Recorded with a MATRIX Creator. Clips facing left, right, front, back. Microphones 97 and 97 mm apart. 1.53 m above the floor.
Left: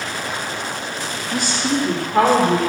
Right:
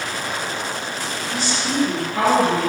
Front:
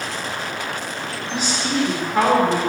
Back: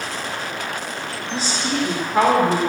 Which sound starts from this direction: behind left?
A woman speaking, at 1.3 s.